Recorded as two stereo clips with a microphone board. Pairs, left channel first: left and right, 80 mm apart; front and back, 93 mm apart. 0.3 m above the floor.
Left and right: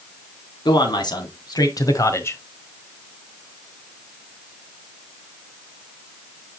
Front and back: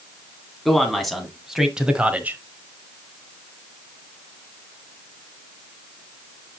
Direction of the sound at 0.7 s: 85° left.